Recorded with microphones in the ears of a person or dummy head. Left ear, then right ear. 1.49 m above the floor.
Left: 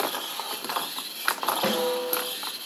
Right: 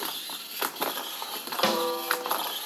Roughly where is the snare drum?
Right.